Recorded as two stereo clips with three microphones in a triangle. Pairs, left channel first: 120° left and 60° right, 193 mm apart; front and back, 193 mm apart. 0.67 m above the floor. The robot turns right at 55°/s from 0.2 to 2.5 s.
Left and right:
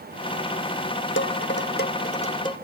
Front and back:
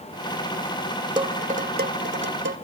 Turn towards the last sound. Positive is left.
turn(degrees=-170)